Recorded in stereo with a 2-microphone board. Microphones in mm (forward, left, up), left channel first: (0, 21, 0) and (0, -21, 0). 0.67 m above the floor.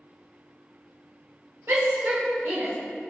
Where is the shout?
65° right (ahead or behind), 3 m; by 2.7 s 55° right (ahead or behind), 3.5 m.